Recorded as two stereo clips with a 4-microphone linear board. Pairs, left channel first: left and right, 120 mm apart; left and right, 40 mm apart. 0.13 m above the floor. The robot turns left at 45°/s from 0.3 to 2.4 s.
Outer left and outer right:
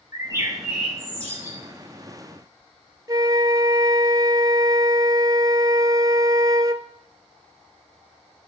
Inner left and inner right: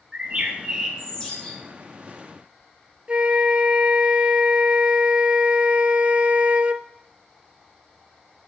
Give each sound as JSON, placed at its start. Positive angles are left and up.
{"t": 0.1, "sound": "a bird", "azimuth_deg": -150, "distance_m": 4.0}
{"t": 3.1, "sound": "a flute", "side_deg": -35, "distance_m": 0.5}